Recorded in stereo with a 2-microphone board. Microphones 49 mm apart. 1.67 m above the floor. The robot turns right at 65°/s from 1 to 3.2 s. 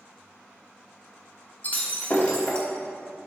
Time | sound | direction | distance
1.6 | breaking glass | 85° left | 1.1 m